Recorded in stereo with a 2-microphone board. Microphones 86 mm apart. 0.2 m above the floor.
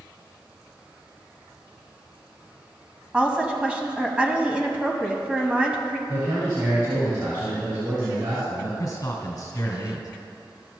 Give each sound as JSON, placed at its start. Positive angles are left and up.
{"t": 3.1, "sound": "a woman speaking", "side_deg": -15, "distance_m": 1.0}
{"t": 6.1, "sound": "a man speaking", "side_deg": -50, "distance_m": 2.5}
{"t": 8.8, "sound": "a man speaking", "side_deg": 45, "distance_m": 2.0}